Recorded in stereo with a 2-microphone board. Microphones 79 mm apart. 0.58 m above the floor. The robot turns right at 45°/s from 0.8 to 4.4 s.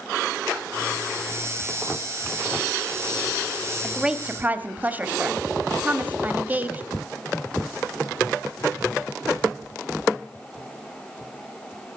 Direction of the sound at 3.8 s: 5° right (ahead or behind).